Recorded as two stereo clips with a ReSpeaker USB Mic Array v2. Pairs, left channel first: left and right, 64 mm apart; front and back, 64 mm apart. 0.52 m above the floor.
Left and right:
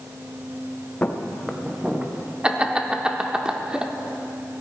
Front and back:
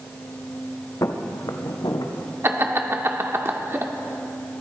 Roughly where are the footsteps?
Ahead left.